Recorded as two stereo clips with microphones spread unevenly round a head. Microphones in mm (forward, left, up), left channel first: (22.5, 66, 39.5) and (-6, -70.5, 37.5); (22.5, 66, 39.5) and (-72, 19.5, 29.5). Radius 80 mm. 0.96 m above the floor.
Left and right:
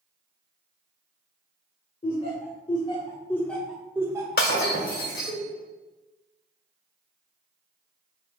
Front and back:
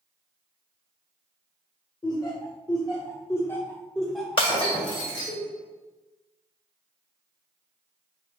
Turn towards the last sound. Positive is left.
turn(degrees=60)